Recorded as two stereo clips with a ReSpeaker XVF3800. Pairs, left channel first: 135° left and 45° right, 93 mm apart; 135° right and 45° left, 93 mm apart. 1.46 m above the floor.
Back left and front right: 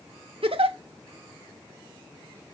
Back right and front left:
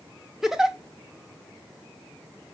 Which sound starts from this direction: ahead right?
A giggle, at 0.4 s.